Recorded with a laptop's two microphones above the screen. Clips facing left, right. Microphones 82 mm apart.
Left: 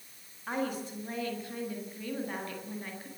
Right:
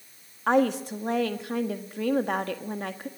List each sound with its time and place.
0.5 s a woman speaking: 80° right, 1.4 m